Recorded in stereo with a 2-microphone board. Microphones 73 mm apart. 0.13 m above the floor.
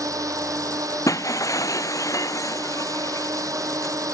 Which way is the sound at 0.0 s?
50° right (ahead or behind).